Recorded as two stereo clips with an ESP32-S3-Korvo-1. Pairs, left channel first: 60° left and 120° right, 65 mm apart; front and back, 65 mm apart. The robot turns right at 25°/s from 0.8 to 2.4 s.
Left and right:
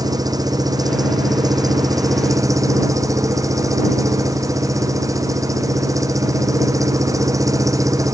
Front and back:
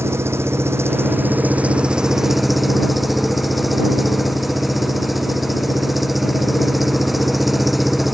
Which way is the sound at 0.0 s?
130° right.